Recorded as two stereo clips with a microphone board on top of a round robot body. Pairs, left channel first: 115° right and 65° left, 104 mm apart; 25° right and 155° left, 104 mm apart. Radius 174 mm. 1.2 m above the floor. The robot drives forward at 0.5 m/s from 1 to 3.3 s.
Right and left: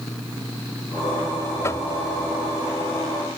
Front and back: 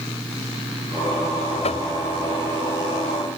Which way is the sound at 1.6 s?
45° right.